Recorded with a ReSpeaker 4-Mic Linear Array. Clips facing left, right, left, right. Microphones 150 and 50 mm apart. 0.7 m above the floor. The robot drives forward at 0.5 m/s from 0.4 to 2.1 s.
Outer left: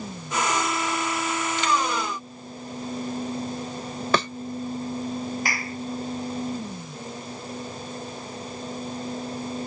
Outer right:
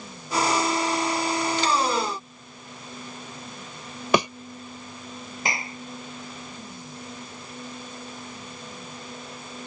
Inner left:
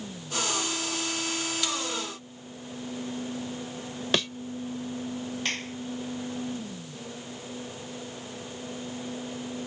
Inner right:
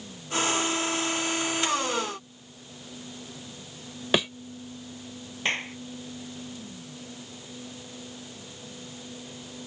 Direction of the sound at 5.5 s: 20° right (ahead or behind).